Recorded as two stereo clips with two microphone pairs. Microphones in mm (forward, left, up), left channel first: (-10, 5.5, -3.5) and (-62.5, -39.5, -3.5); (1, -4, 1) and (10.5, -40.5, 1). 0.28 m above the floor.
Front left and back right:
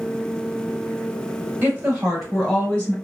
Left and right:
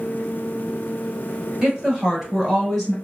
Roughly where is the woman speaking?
Behind right.